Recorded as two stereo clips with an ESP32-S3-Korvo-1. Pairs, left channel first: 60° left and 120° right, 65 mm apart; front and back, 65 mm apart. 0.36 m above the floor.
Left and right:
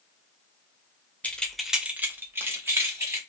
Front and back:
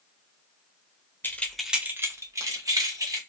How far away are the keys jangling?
About 0.6 m.